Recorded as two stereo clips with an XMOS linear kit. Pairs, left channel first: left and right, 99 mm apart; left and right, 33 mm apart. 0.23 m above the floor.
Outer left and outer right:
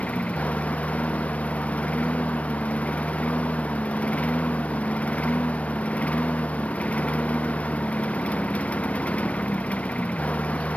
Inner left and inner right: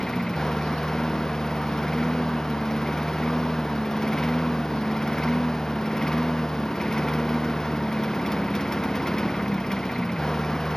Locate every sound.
0.0 s a lawn mower: 15° left (ahead or behind)